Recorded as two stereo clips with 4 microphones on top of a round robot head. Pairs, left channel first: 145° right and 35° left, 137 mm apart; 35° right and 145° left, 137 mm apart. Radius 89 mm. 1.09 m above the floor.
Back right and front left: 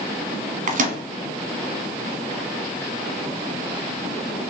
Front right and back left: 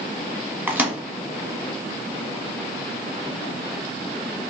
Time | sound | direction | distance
0.7 | a microwave | 65° left | 1.2 m